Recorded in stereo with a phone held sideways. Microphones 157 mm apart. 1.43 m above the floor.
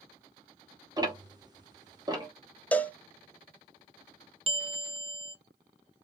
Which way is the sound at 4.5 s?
35° right (ahead or behind).